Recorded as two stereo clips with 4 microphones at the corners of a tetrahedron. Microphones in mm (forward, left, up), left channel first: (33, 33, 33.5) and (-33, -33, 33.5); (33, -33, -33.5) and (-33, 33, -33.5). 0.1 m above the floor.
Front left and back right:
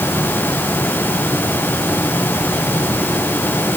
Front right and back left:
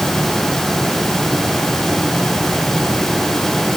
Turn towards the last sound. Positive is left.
No sound to turn to.